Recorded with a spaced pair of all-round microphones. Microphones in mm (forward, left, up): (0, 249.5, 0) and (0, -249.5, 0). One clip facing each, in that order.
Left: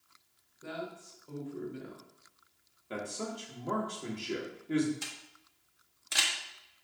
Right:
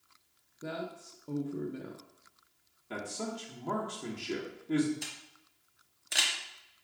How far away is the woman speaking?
About 0.6 m.